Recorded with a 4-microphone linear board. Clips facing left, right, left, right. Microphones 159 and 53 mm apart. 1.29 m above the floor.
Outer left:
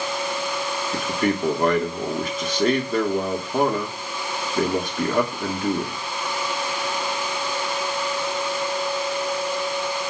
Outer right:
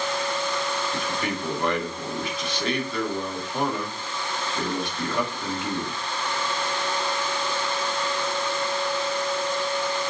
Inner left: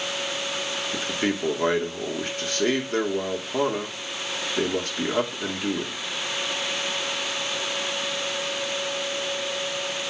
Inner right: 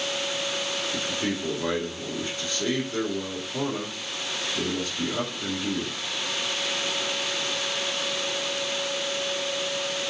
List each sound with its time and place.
0.9 s a man speaking: 45° left (ahead or behind), 2.5 m